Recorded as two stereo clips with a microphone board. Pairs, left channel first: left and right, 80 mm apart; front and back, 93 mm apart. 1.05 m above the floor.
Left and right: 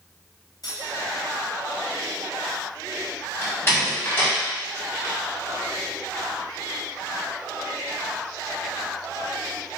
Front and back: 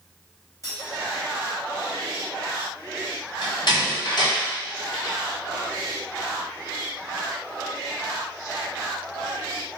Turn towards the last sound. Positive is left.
turn(degrees=35)